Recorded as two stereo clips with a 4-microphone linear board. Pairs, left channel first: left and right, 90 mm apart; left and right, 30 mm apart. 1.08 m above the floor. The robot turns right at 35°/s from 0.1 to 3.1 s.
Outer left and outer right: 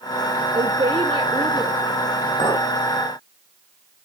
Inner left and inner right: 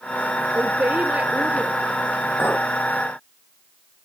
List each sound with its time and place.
0.5 s a woman speaking: 95° right, 2.0 m; by 2.7 s 20° right, 2.0 m
2.4 s a clink: 80° left, 4 m; by 2.6 s 75° left (ahead or behind), 4 m